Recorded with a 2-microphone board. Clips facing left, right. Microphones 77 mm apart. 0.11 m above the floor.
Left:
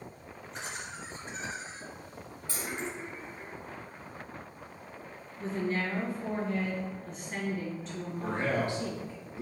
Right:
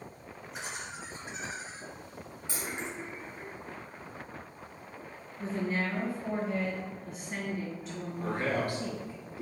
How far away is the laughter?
About 1.8 m.